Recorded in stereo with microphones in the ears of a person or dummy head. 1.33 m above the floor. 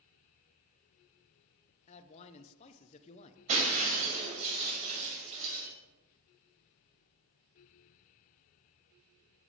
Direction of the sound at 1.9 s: 35° left (ahead or behind).